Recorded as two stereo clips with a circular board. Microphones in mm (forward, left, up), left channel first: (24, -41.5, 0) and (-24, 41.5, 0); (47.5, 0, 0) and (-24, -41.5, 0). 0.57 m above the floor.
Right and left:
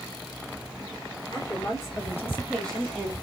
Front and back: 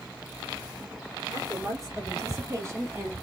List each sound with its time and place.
1.3 s a woman speaking: 105° right, 2 m; by 3.1 s 175° right, 1.2 m